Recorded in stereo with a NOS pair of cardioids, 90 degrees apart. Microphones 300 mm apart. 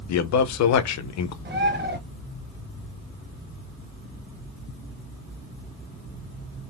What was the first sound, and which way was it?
A man speaking, 65° left.